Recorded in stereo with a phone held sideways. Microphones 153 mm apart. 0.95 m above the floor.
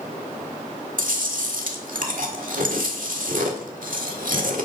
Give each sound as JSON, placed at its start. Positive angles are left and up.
{"t": 1.0, "sound": "chewing", "side_deg": -60, "distance_m": 1.7}